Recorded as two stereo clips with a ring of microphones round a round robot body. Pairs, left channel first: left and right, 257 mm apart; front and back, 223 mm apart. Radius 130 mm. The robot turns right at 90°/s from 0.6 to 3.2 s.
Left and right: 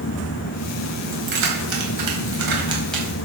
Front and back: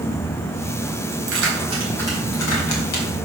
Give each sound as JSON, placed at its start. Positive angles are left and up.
{"t": 1.1, "sound": "keys jangling", "azimuth_deg": -160, "distance_m": 3.5}